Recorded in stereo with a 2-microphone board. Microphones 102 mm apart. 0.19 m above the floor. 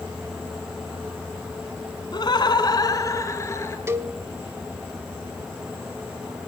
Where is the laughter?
45° left (ahead or behind), 1.5 m; by 3.8 s 25° left (ahead or behind), 3 m.